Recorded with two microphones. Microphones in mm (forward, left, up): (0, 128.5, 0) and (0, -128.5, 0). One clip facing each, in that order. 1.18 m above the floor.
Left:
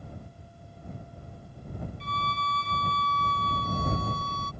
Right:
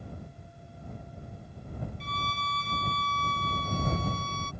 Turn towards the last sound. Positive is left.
turn(degrees=60)  # may be behind; listen again after turning